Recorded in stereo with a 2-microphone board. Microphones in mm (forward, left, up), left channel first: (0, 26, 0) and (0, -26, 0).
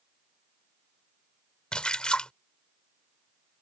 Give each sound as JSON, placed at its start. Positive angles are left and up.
{"t": 1.7, "sound": "a splash", "side_deg": 20}